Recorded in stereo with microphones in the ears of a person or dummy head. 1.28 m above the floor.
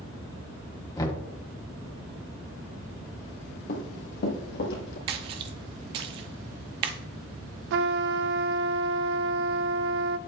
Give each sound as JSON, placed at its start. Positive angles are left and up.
{"t": 1.0, "sound": "knocking", "side_deg": 20, "distance_m": 1.8}
{"t": 3.7, "sound": "running footsteps", "side_deg": 55, "distance_m": 2.0}
{"t": 5.1, "sound": "a splash", "side_deg": -35, "distance_m": 0.8}
{"t": 7.7, "sound": "a trumpet", "side_deg": -75, "distance_m": 0.5}